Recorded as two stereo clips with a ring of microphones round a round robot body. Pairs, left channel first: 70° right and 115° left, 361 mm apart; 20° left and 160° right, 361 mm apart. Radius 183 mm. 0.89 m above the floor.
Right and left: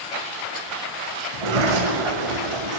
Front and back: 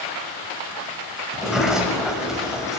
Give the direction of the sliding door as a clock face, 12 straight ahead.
8 o'clock.